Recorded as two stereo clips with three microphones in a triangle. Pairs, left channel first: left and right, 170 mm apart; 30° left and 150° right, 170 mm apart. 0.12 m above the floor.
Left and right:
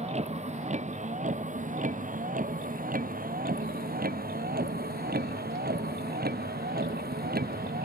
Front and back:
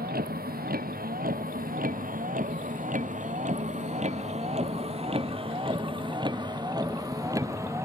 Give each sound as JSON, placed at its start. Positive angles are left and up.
{"t": 0.0, "sound": "a vehicle", "azimuth_deg": -135}